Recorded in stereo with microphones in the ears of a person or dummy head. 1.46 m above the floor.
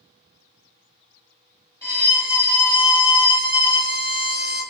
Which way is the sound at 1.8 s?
20° left (ahead or behind).